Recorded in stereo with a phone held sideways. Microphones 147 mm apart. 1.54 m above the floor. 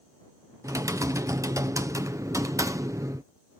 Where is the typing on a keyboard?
20° right (ahead or behind).